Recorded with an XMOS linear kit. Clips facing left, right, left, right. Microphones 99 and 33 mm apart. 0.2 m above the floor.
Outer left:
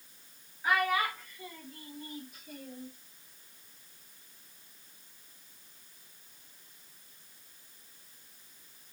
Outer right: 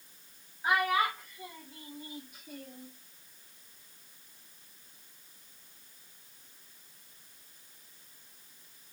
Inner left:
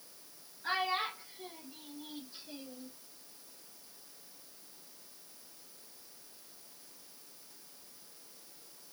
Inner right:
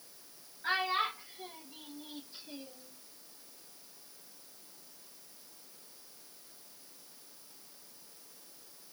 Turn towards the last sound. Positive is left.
turn(degrees=5)  # may be behind; listen again after turning